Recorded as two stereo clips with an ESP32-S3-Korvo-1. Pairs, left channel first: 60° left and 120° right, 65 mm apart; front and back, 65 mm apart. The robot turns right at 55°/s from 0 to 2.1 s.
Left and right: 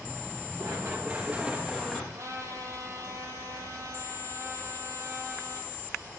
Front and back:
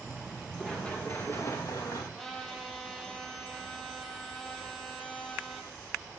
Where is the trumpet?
85° right, 4.5 m.